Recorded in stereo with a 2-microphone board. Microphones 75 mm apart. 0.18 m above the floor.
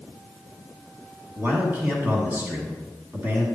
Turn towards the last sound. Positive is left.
turn(degrees=-30)  # may be behind; listen again after turning